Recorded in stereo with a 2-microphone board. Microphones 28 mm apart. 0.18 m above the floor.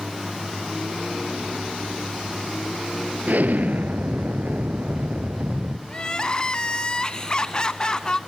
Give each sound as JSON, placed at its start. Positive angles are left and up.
{"t": 3.3, "sound": "an explosion", "side_deg": -65, "distance_m": 0.9}
{"t": 5.9, "sound": "crying", "side_deg": 25, "distance_m": 0.6}